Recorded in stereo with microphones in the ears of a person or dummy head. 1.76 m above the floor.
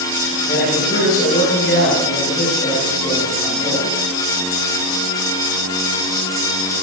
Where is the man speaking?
55° left (ahead or behind), 8 m.